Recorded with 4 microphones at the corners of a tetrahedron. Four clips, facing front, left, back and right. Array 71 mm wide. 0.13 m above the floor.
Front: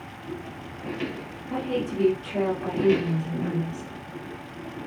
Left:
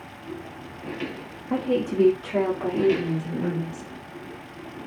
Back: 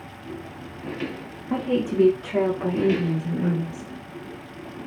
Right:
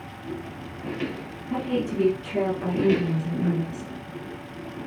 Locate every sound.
1.5 s a woman speaking: 145° left, 6 m; by 3.9 s 130° left, 5.5 m